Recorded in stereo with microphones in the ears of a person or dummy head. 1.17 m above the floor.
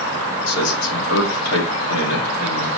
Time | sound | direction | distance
0.5 | a man speaking | 80° left | 2 m